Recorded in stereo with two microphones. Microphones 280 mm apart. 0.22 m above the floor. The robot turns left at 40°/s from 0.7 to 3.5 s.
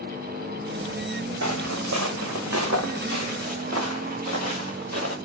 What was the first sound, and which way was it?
Footsteps, 75° right (ahead or behind).